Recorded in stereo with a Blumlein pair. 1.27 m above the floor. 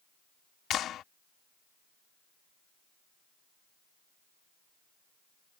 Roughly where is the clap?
Ahead left.